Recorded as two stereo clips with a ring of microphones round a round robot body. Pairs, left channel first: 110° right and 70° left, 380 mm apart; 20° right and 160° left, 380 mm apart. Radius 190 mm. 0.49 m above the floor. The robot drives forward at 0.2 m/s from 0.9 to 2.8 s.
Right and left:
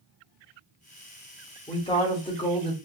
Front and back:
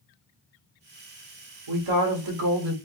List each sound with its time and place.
1.7 s a woman speaking: 170° left, 1.2 m; by 2.7 s 175° left, 1.4 m